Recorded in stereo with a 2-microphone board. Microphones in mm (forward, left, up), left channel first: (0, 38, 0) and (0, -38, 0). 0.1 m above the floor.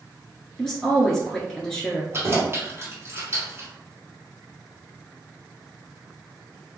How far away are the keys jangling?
About 1.8 m.